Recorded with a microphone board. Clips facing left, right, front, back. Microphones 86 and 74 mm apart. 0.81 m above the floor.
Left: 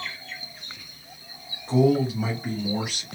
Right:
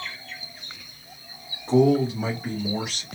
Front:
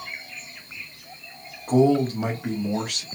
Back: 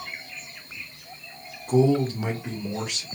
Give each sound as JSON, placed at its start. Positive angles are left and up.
{"t": 1.7, "sound": "a man speaking", "azimuth_deg": -20, "distance_m": 2.0}